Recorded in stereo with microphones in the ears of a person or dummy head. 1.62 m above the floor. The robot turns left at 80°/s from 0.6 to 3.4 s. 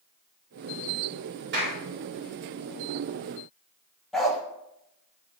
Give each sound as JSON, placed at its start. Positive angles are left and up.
{"t": 1.5, "sound": "a clap", "side_deg": -50, "distance_m": 4.0}
{"t": 4.1, "sound": "a dog barking", "side_deg": 0, "distance_m": 1.0}